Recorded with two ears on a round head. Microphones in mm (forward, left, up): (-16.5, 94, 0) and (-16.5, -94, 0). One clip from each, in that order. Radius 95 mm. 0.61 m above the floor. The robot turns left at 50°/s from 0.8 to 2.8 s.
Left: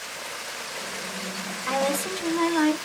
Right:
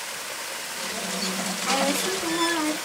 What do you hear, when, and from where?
1.7 s a woman speaking: straight behind, 1.3 m; by 2.8 s 125° left, 1.3 m